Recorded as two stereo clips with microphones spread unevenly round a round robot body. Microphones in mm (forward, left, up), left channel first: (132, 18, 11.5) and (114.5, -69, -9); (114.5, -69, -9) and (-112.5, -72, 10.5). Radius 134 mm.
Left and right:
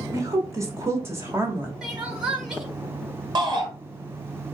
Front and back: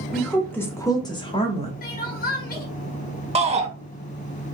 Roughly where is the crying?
Ahead right.